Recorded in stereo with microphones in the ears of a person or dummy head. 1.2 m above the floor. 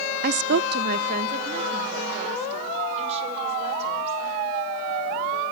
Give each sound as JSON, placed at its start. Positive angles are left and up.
{"t": 0.2, "sound": "a woman speaking", "side_deg": -40, "distance_m": 0.6}